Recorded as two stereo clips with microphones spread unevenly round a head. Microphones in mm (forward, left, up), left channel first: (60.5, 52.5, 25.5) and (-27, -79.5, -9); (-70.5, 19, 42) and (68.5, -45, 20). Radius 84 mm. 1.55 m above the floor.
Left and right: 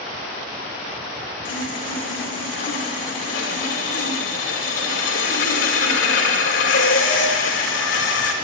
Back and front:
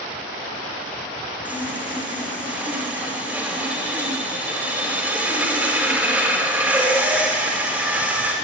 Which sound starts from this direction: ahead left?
Sawing, at 1.4 s.